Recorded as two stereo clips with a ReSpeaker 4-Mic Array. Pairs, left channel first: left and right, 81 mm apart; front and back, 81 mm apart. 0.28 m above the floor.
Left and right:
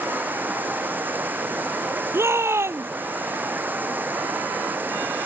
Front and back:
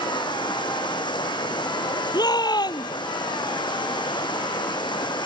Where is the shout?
30° right.